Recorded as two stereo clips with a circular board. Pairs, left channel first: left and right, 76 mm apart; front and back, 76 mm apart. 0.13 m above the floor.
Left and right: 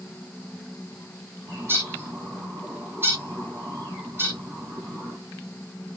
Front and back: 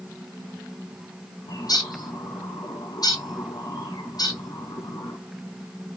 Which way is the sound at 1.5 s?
30° right.